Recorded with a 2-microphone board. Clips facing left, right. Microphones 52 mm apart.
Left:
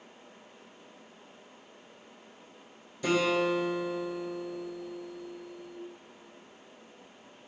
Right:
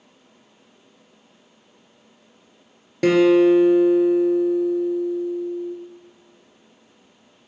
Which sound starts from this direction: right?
A guitar, at 3.0 s.